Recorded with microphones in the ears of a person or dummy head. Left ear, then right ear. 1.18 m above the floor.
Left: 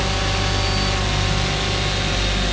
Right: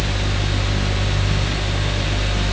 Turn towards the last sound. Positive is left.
No sound to turn to.